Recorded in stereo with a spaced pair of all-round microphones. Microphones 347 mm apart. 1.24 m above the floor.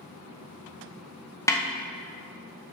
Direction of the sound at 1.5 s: 10° left (ahead or behind).